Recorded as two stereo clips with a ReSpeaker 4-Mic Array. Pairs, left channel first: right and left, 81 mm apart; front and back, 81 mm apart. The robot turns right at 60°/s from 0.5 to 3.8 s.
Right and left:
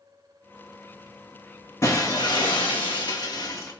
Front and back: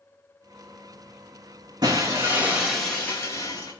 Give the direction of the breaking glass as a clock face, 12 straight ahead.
5 o'clock.